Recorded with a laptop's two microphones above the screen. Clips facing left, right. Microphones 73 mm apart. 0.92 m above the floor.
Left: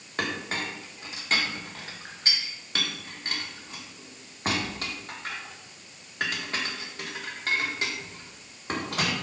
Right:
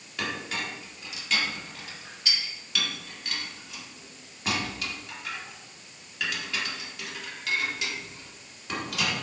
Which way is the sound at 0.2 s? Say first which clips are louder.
Left 2 dB; 40° left (ahead or behind).